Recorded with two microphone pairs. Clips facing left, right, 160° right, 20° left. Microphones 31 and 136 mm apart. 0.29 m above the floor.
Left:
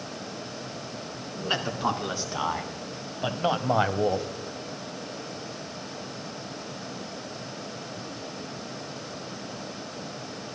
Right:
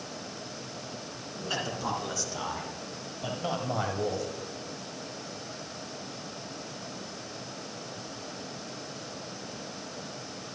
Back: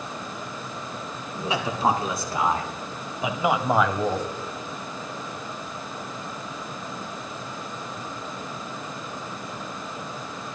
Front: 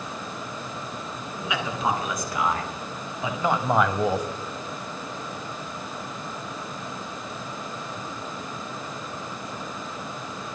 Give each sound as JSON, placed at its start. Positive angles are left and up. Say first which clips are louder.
{"t": 1.4, "sound": "a man speaking", "louder": "left 4 dB, back 3 dB", "azimuth_deg": 145, "distance_m": 3.0}